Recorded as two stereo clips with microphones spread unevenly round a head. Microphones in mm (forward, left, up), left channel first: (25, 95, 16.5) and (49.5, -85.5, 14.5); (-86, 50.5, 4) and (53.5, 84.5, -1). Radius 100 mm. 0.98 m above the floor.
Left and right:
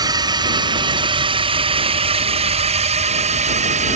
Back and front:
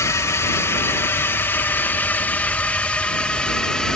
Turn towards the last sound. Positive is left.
turn(degrees=-80)